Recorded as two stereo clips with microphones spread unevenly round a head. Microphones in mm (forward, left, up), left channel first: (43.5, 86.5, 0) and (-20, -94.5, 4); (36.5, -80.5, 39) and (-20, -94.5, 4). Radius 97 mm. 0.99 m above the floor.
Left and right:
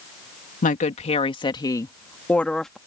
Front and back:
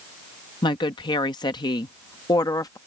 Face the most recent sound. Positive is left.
turn(degrees=-20)